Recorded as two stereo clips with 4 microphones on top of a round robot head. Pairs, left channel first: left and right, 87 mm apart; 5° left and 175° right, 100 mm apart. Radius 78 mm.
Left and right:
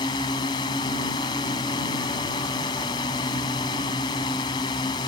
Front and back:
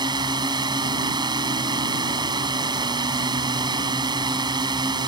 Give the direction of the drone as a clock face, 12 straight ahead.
7 o'clock.